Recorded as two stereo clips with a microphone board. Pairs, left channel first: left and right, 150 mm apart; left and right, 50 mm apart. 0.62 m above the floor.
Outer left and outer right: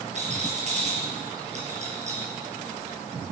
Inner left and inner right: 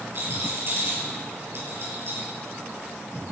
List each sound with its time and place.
0.1 s a rattle: 50° right (ahead or behind), 5 m